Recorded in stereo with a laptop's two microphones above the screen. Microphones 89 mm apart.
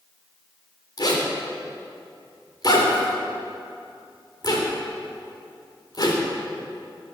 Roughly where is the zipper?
Left.